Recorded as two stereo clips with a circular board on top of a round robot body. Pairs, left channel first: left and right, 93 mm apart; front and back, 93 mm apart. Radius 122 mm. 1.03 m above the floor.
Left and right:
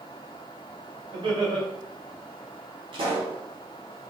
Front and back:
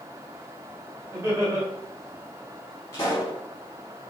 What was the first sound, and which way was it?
Laughter, 120° right.